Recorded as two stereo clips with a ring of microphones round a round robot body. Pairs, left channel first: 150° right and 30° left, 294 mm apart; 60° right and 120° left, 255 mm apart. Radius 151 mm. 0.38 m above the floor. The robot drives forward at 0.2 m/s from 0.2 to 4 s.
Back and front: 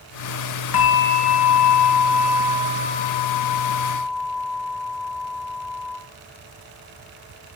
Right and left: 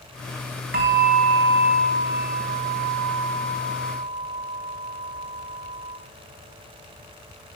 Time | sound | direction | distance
0.7 | a bell | 175° left | 3 m